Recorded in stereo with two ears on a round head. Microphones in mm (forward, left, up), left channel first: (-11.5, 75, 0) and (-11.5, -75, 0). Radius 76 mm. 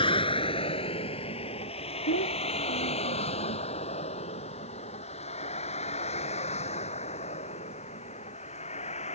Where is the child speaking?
80° left.